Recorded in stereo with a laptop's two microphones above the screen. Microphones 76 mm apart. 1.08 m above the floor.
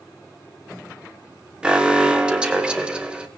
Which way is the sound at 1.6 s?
10° right (ahead or behind).